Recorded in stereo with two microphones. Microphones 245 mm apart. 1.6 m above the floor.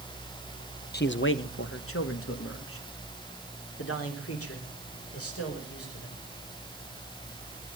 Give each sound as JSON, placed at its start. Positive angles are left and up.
{"t": 0.9, "sound": "a man speaking", "side_deg": 45, "distance_m": 0.7}